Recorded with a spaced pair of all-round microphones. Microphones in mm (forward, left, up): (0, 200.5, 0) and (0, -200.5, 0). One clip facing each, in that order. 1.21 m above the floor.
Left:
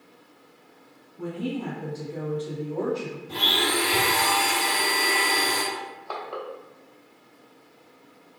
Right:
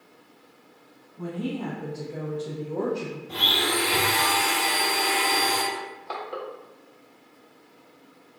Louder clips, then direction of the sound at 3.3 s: Left 1 dB; 5° left (ahead or behind).